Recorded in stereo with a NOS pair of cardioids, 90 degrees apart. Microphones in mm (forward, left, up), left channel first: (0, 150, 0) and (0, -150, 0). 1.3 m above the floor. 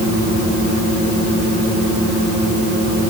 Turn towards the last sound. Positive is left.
No sound to turn to.